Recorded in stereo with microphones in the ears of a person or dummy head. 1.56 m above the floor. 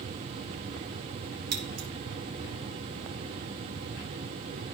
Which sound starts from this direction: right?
Scissors, at 1.5 s.